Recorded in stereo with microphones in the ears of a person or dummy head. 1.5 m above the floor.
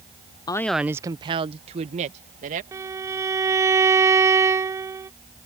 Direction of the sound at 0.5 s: 25° left (ahead or behind).